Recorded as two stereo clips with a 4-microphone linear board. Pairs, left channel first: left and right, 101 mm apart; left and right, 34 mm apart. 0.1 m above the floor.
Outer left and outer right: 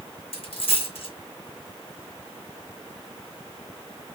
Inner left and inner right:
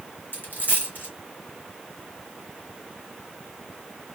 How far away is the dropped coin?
About 2 m.